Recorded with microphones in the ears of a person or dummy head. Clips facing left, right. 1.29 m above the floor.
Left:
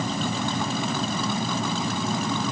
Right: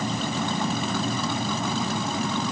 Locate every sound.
Only background noise.